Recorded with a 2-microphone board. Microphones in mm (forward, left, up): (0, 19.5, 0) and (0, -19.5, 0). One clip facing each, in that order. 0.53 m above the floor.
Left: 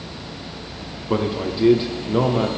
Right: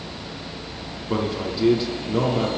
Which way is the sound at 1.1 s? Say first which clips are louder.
Left 3 dB; 20° left (ahead or behind).